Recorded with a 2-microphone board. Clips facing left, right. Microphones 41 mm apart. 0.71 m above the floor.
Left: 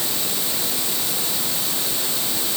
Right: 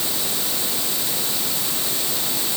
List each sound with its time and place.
Only background noise.